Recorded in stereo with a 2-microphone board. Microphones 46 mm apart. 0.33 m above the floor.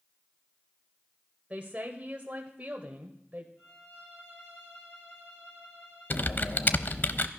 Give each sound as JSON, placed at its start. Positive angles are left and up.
{"t": 1.5, "sound": "a woman speaking", "side_deg": -30, "distance_m": 1.4}
{"t": 3.6, "sound": "a violin", "side_deg": 65, "distance_m": 7.0}
{"t": 6.1, "sound": "typing on a keyboard", "side_deg": 45, "distance_m": 0.6}